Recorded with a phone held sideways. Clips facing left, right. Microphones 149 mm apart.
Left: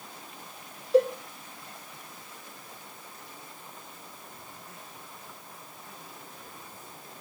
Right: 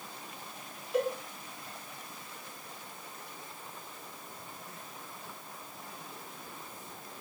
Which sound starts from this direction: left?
A cowbell, at 0.9 s.